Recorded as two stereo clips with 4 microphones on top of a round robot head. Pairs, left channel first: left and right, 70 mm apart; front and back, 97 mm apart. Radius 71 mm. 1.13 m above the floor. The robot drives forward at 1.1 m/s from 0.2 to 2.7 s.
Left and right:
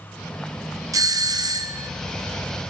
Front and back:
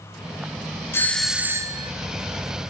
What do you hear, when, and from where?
0.9 s a doorbell: 65° right, 0.9 m; by 1.9 s 135° right, 1.1 m